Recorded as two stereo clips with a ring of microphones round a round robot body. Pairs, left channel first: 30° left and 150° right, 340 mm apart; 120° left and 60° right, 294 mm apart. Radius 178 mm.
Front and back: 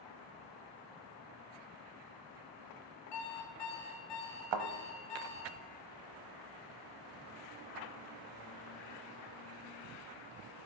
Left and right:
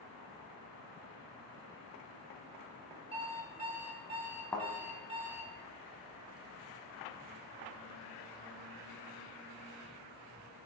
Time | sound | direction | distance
3.1 | an alarm clock | 10° left | 2.5 m
4.5 | a thud | 155° right | 1.0 m